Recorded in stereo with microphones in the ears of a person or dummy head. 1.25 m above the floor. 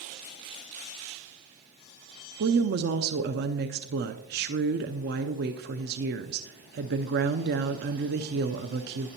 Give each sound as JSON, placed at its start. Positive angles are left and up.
{"t": 2.4, "sound": "a woman speaking", "side_deg": -50, "distance_m": 0.5}